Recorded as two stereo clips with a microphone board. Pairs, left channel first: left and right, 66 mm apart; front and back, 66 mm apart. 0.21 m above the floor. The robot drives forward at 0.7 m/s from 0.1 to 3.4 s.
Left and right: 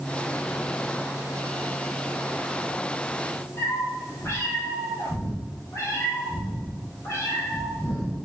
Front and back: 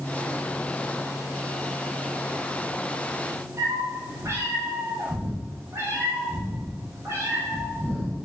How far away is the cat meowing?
About 3.5 m.